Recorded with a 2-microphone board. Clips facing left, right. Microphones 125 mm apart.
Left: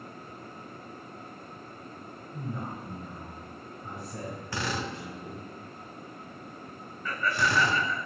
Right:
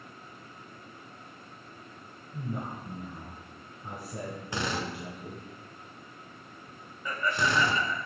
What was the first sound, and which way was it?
A man speaking, 20° right (ahead or behind).